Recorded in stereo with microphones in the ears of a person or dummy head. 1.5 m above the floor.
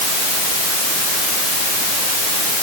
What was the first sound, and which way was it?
Only background noise.